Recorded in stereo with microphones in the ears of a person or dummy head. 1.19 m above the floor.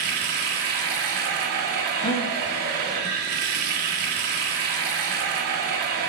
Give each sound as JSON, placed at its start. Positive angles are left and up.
{"t": 0.0, "sound": "running water", "side_deg": -55, "distance_m": 1.1}
{"t": 2.0, "sound": "a gasp", "side_deg": 25, "distance_m": 0.9}